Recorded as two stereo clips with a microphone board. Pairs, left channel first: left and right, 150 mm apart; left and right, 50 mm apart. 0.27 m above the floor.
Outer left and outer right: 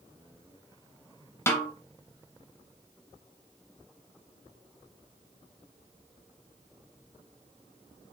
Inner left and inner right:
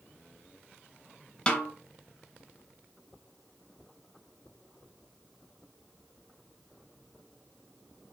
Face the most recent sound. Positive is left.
turn(degrees=15)  # may be behind; listen again after turning